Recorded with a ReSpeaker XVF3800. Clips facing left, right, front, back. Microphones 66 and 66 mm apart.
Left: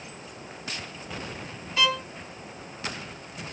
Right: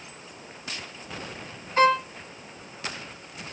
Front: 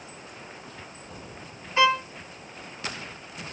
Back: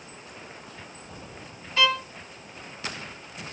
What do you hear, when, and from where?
1.8 s a violin: 60° right, 1.0 m